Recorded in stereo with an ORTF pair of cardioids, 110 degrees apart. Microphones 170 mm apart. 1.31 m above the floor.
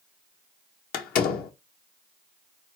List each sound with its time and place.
0.9 s a door slam: 70° left, 0.8 m